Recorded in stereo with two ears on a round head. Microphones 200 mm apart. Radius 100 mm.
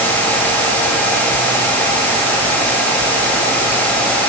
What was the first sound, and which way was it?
Only background noise.